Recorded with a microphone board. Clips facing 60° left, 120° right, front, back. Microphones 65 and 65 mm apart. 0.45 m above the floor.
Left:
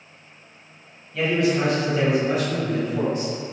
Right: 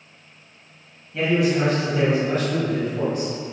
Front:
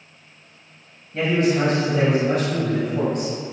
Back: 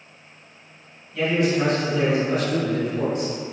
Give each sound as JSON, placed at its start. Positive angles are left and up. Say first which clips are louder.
{"t": 1.1, "sound": "a man speaking", "louder": "right 1 dB, front 1 dB", "azimuth_deg": -45, "distance_m": 2.5}